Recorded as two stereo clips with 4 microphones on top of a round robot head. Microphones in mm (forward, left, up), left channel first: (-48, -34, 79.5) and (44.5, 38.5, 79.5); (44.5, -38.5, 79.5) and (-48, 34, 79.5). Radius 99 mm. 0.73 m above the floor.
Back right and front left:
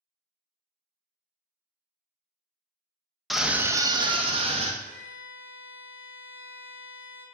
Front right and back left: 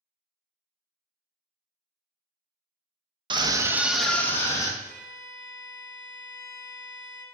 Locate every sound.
3.3 s a scream: 130° left, 0.7 m; by 4.7 s 20° left, 1.0 m
4.8 s a violin: 90° left, 1.6 m